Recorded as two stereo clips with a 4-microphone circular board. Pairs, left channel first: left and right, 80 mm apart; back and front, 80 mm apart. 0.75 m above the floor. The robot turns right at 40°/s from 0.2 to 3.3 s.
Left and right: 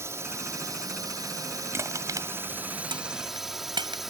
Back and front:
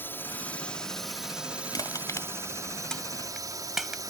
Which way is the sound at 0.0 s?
130° right.